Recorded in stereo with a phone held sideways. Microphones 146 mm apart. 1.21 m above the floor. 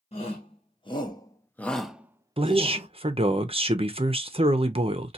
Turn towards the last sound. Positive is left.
turn(degrees=-40)  # may be behind; listen again after turning